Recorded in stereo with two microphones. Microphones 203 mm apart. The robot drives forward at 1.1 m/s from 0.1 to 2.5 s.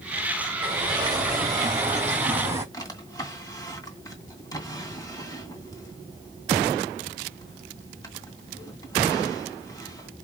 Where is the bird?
25° right (ahead or behind), 2.5 m; by 2.6 s 15° right (ahead or behind), 4 m.